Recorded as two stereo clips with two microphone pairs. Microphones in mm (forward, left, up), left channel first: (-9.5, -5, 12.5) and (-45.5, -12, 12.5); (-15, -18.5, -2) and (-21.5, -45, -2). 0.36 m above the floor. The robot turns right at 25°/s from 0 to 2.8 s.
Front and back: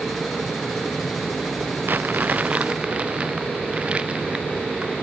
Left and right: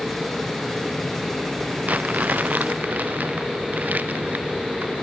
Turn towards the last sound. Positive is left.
turn(degrees=-110)